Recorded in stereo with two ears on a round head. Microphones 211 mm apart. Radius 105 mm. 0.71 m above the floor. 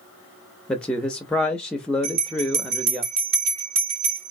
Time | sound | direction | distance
0.7 | a man speaking | 5° left (ahead or behind) | 0.5 m
2.0 | a bell | 45° right (ahead or behind) | 1.3 m